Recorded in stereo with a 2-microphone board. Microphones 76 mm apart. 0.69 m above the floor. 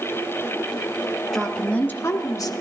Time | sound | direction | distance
1.3 | a woman speaking | 5° left (ahead or behind) | 1.1 m